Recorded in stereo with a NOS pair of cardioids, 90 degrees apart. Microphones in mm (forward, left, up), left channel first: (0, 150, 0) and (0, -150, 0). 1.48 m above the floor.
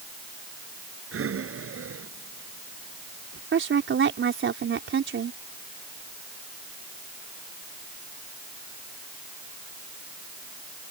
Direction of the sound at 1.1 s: 45° right.